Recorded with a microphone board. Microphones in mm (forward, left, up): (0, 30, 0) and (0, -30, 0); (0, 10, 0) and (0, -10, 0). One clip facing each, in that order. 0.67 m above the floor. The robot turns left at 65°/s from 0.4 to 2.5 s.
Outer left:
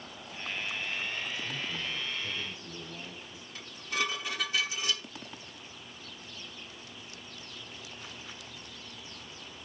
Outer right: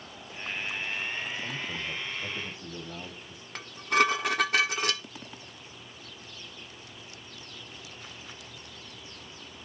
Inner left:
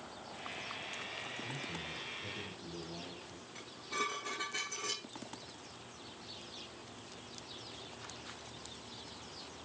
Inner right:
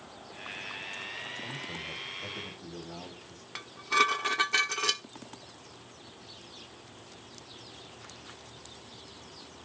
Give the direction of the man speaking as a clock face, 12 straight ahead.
1 o'clock.